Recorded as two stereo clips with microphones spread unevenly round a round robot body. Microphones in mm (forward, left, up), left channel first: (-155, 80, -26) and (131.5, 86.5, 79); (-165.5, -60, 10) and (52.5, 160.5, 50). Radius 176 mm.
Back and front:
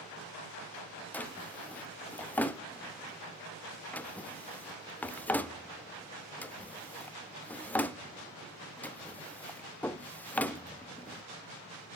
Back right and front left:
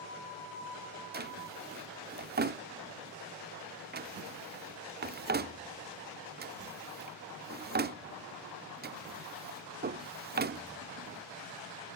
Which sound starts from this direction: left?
A drawer, at 1.1 s.